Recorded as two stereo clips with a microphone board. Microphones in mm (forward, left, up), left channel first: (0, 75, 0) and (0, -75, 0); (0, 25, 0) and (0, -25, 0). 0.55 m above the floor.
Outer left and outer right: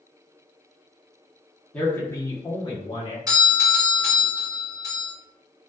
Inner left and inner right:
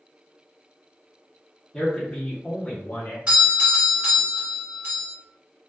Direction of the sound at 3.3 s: 25° right (ahead or behind).